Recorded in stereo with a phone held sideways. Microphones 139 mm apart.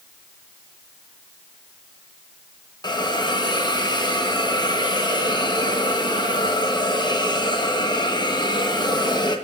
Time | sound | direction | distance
2.8 | a hiss | 30° left (ahead or behind) | 0.8 m